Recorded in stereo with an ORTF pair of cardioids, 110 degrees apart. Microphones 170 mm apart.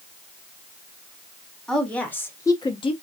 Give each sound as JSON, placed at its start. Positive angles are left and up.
{"t": 1.7, "sound": "a woman speaking", "azimuth_deg": 5, "distance_m": 1.3}